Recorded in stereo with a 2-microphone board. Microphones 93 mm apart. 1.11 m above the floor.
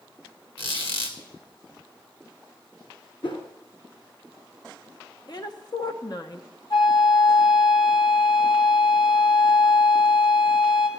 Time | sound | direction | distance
0.6 | a squeak | 85° left | 2.0 m
3.2 | a whoosh | 65° left (ahead or behind) | 2 m
5.3 | a woman speaking | 50° left (ahead or behind) | 1.0 m
6.7 | a flute | 55° left (ahead or behind) | 2 m